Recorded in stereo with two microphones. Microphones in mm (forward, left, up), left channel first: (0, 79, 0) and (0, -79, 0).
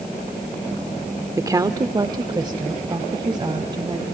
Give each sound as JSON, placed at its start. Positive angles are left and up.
{"t": 1.4, "sound": "a woman speaking", "side_deg": -20, "distance_m": 0.9}